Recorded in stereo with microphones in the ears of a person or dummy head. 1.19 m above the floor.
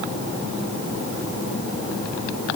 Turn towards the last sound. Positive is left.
No sound to turn to.